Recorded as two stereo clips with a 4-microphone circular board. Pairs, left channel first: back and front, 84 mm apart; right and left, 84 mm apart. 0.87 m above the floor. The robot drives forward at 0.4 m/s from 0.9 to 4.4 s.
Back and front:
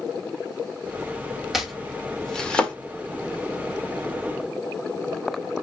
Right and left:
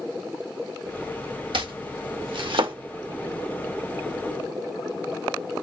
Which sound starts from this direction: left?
Chopping, at 1.5 s.